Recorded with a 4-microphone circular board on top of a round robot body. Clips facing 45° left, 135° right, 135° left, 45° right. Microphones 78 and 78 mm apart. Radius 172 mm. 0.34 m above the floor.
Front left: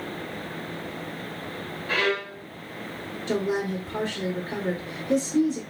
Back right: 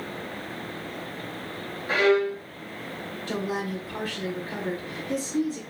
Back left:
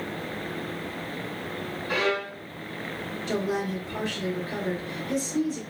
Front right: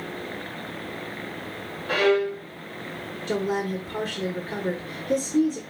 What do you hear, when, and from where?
1.9 s a violin: 70° right, 1.1 m
3.3 s a woman speaking: 10° right, 1.2 m